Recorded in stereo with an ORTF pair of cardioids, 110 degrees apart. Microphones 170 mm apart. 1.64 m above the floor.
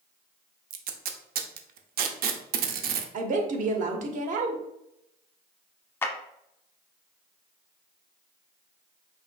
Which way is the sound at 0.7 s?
60° right.